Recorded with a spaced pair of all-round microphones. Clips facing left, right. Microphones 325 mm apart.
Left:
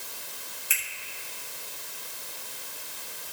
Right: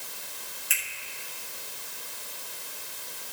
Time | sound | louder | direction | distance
0.7 | a finger snap | right 1 dB | 5° left (ahead or behind) | 2.5 m